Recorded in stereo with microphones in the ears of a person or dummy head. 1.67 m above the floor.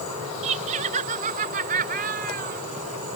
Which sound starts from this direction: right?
Laughter, at 0.4 s.